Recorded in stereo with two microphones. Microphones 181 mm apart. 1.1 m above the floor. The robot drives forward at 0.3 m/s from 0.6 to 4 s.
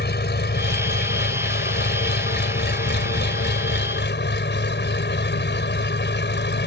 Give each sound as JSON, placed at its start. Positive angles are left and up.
{"t": 0.0, "sound": "an engine running", "side_deg": 70}